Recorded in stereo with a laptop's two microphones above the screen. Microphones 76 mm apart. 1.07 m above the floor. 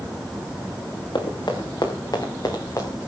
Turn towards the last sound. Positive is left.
turn(degrees=35)  # may be behind; listen again after turning